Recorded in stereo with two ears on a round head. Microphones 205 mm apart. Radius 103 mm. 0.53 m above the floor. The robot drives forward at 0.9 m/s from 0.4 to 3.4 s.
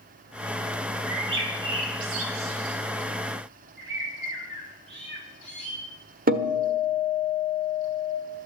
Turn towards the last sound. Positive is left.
turn(degrees=-40)  # may be behind; listen again after turning